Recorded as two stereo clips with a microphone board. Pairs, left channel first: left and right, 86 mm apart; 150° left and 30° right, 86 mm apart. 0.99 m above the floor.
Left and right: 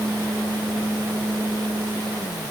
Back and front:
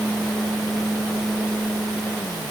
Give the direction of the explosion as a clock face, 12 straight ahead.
I don't hear an explosion.